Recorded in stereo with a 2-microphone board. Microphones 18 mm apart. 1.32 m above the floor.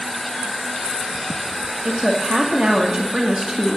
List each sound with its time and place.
1.9 s a woman speaking: 35° right (ahead or behind), 2 m